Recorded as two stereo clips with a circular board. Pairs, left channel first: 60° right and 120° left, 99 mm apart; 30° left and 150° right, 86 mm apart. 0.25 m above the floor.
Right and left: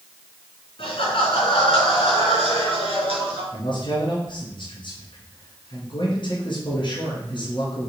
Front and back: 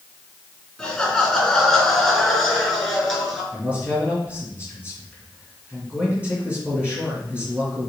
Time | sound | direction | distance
0.8 | laughter | 55° right | 3 m
3.5 | a man speaking | 80° right | 2.5 m